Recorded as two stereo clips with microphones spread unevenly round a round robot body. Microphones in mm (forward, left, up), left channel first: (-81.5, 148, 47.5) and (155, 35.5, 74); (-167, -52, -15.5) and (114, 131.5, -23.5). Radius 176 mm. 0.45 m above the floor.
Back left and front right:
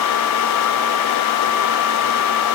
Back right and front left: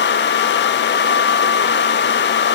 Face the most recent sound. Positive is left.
No sound to turn to.